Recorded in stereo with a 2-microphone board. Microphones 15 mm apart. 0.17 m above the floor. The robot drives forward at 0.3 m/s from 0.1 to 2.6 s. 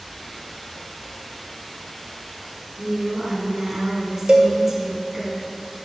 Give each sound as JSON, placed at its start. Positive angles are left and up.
{"t": 2.8, "sound": "a woman speaking", "side_deg": -35, "distance_m": 2.0}
{"t": 4.3, "sound": "a cowbell", "side_deg": -75, "distance_m": 1.3}